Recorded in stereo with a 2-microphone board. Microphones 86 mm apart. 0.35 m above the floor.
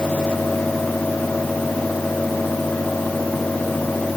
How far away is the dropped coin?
I don't hear a dropped coin.